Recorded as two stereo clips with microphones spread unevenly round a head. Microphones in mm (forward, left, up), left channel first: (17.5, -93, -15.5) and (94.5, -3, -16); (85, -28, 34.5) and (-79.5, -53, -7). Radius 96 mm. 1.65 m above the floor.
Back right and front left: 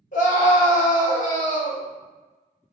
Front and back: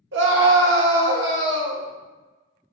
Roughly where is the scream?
Behind right.